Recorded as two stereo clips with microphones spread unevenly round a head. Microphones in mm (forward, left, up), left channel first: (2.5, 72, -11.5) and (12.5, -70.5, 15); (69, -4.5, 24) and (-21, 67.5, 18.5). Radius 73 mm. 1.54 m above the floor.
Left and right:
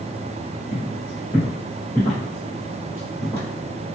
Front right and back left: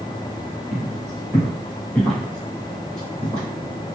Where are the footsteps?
40° left, 1.6 m; by 3.4 s 110° right, 1.8 m.